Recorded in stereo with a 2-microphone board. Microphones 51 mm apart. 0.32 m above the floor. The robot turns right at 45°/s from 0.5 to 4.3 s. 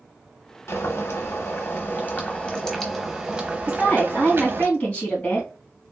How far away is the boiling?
About 0.8 m.